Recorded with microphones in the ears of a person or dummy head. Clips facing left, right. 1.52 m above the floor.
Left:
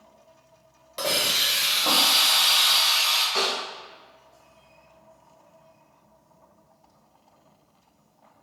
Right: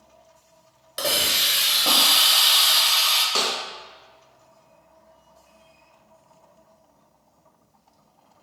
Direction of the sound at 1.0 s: 5° right (ahead or behind).